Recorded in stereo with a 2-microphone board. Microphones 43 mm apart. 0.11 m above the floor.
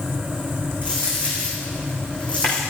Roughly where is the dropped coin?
Left.